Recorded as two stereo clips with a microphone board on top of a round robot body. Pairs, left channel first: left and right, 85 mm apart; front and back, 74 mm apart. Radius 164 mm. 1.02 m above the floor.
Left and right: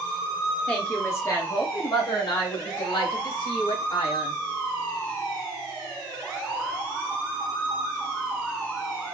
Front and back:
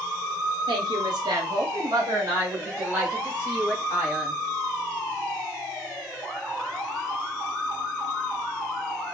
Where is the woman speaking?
165° left, 1.0 m; by 4.4 s 105° left, 2.5 m.